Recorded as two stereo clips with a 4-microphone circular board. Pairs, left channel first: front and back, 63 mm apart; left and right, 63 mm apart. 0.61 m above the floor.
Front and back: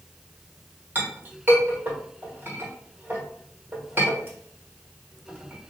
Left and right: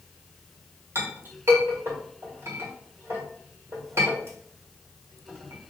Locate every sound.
0.9 s a clink: 125° right, 1.4 m